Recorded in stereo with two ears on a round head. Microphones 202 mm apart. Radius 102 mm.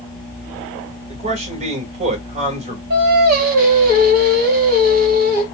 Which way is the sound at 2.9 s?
45° right (ahead or behind).